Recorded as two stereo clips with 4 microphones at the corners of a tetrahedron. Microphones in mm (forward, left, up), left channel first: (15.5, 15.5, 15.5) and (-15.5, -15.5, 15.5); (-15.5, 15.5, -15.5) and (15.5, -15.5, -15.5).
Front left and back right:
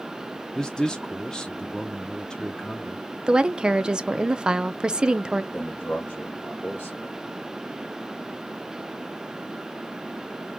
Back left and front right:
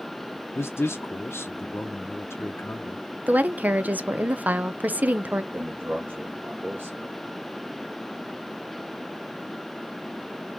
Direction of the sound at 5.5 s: 5° right.